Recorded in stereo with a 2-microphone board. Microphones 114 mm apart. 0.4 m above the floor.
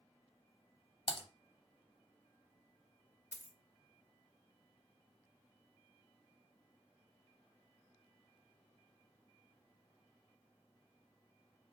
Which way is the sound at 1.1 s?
55° left (ahead or behind).